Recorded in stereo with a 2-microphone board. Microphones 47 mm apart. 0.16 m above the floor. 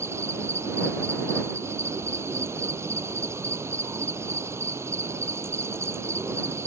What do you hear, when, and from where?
0.0 s an insect: 60° right (ahead or behind)